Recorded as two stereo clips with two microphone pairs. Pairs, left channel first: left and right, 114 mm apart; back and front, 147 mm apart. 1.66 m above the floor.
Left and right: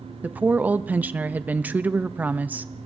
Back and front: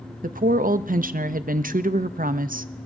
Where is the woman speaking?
15° right, 0.6 m.